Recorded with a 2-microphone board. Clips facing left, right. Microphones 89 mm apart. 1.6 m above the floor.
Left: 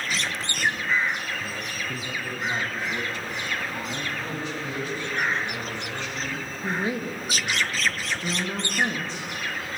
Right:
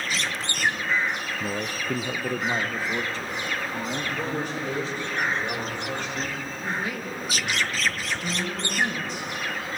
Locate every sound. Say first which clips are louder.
1.4 s a man speaking: right 3 dB; 45° right (ahead or behind), 0.6 m; by 5.0 s 30° right (ahead or behind), 2.5 m
4.0 s a man speaking: right 3 dB; 60° right (ahead or behind), 7 m
6.6 s a woman speaking: left 4 dB; 30° left (ahead or behind), 3 m